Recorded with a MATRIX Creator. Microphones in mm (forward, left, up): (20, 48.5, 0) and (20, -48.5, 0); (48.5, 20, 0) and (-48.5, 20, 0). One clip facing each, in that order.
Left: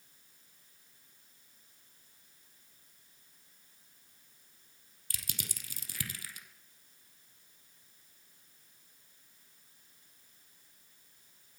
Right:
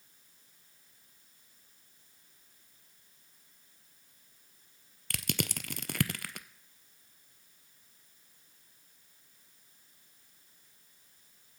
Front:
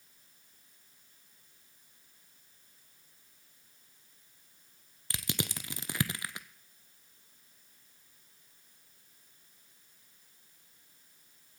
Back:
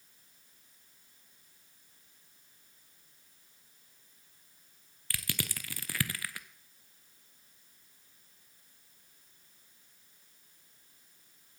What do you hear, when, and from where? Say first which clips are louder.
5.1 s crushing: right 13 dB, front 3 dB; 70° right, 0.5 m